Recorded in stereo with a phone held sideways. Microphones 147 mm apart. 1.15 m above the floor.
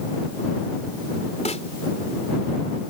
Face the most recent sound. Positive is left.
turn(degrees=50)  # may be behind; listen again after turning